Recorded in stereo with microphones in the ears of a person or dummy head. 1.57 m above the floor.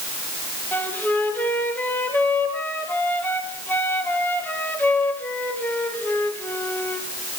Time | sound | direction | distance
0.7 | a flute | 10° left (ahead or behind) | 1.6 m